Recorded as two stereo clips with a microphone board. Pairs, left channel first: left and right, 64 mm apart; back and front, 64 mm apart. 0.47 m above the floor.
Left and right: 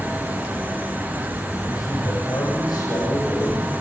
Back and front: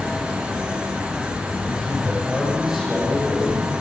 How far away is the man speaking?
About 8.5 m.